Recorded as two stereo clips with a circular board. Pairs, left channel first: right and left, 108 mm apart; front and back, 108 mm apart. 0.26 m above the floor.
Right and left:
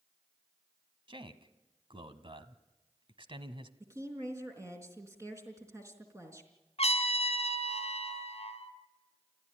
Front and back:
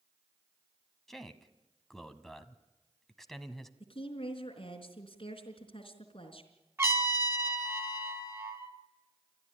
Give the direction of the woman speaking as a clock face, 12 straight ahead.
11 o'clock.